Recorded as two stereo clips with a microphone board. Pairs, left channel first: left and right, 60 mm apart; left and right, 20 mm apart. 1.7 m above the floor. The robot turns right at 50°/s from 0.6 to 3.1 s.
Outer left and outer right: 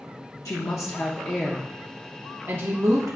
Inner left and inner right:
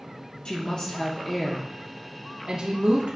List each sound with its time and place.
0.5 s a woman speaking: 120° left, 0.8 m; by 3.2 s 115° right, 0.8 m